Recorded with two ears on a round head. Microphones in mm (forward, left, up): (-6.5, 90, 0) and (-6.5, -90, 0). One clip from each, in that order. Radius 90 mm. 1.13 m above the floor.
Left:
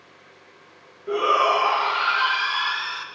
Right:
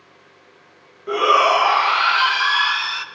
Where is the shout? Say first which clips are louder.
Right 4 dB; 25° right (ahead or behind), 0.8 m.